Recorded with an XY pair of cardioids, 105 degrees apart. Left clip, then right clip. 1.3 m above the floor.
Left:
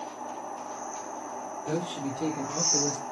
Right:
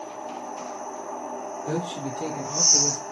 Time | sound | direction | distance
1.6 | a man speaking | 25° right | 1.3 m